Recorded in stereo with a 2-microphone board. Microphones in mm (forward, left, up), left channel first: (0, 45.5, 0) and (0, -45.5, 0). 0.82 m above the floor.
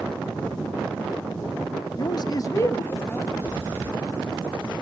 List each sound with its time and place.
2.0 s a man speaking: 45° left (ahead or behind), 0.7 m; by 3.3 s 20° left (ahead or behind), 2 m
3.4 s breathing: 30° right (ahead or behind), 7 m